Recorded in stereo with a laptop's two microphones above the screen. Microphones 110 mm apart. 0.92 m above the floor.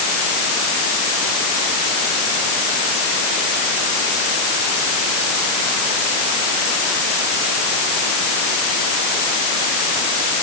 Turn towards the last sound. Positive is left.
No sound to turn to.